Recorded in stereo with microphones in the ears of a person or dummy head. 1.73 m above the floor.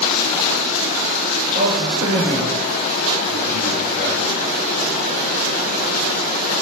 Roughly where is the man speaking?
Right.